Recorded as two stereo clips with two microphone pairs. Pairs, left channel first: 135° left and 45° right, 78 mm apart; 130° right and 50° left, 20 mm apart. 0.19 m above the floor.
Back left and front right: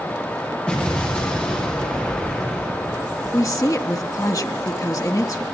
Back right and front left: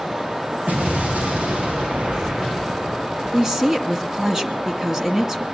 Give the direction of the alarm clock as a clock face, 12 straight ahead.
I don't hear an alarm clock.